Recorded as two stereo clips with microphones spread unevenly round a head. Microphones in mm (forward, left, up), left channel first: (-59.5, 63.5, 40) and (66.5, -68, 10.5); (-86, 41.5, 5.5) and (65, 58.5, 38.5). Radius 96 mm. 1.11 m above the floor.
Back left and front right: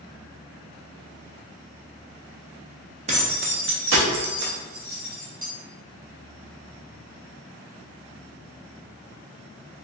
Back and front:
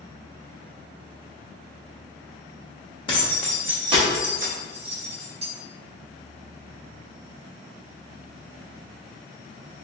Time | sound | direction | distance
3.1 | keys jangling | 105° right | 0.6 m